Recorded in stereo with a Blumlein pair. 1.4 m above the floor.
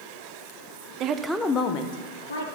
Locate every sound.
1.0 s a woman speaking: 35° right, 0.7 m; by 2.5 s 65° left, 1.4 m